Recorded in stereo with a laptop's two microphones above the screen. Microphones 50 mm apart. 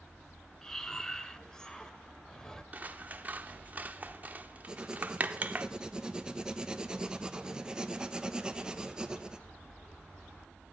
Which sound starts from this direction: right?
Scissors, at 2.7 s.